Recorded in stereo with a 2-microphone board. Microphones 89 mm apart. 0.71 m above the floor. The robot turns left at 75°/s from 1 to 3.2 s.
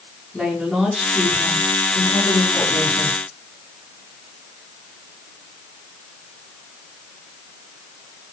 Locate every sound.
0.3 s a woman speaking: 175° left, 6.5 m; by 3.2 s 15° left, 6.5 m